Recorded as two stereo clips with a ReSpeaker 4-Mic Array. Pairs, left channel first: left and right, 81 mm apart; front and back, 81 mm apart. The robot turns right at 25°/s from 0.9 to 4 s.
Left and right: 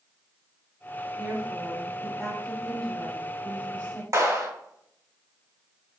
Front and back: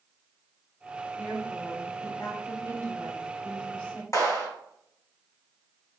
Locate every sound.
1.2 s a woman speaking: 20° right, 1.3 m; by 4.0 s 50° left, 1.3 m
4.1 s a clap: 50° right, 1.9 m